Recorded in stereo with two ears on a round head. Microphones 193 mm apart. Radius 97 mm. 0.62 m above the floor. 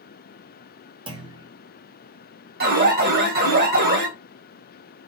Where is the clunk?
20° right (ahead or behind), 1.1 m.